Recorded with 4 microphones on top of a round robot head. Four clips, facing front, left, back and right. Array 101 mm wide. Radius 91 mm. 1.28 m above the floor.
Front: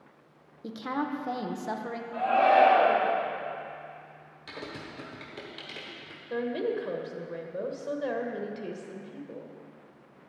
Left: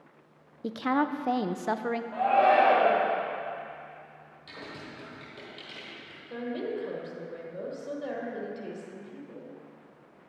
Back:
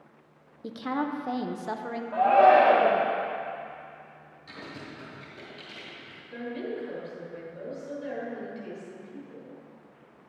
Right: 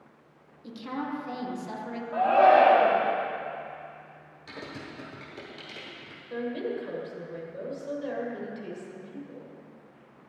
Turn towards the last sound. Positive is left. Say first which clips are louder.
# right 2 dB, front 5 dB
turn(degrees=15)